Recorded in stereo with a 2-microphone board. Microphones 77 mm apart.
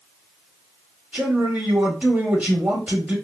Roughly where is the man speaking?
Centre.